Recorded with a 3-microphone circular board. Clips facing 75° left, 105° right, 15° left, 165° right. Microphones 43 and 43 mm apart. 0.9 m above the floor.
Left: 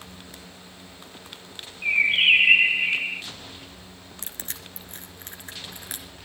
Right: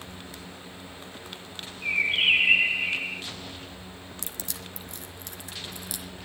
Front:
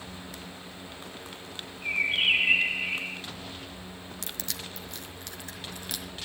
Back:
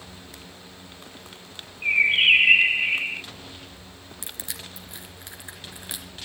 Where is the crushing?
125° left, 3 m.